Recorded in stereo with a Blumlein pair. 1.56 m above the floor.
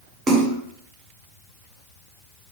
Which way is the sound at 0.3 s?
20° right.